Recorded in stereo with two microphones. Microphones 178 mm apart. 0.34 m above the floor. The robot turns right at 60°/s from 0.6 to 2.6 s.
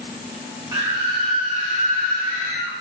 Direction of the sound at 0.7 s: 135° right.